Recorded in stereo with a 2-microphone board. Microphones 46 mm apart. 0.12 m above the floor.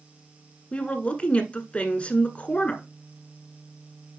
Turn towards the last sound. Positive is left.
turn(degrees=30)  # may be behind; listen again after turning